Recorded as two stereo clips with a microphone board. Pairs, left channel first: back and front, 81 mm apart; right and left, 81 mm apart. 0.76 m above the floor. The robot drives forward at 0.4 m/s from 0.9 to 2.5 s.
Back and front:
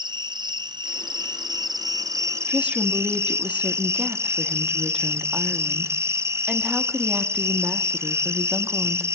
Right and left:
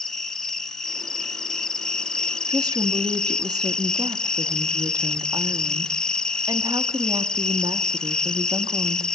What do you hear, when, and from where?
0.0 s an insect: 5° right, 1.0 m; by 9.2 s 15° right, 0.5 m
2.5 s a woman speaking: 70° left, 1.4 m